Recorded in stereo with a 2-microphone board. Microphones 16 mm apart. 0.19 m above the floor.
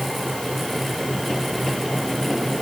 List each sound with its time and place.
Only background noise.